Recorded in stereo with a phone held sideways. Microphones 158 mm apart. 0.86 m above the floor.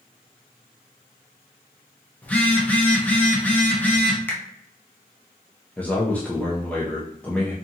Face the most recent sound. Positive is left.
turn(degrees=10)  # may be behind; listen again after turning